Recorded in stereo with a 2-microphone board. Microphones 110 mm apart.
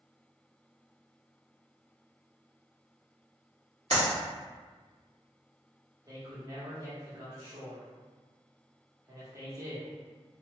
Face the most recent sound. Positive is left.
turn(degrees=-35)  # may be behind; listen again after turning